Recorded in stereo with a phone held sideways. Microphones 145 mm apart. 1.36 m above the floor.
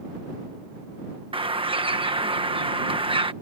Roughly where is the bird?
Right.